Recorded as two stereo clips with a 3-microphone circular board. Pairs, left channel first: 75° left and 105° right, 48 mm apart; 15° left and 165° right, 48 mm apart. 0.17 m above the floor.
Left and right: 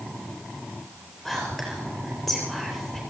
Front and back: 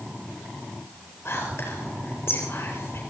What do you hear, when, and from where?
1.2 s whispering: 25° right, 4 m